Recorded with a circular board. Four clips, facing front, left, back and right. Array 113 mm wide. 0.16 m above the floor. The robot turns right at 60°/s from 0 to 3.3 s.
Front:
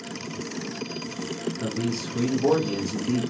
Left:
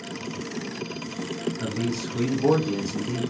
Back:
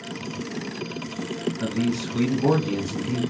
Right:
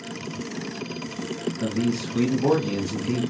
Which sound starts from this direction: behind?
A man speaking, at 1.6 s.